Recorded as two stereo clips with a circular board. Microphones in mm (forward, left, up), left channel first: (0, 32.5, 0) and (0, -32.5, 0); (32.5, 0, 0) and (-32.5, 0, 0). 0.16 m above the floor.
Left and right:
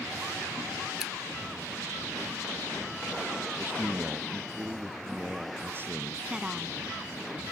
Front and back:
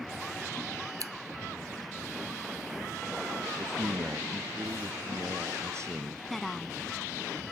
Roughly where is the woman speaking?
Right.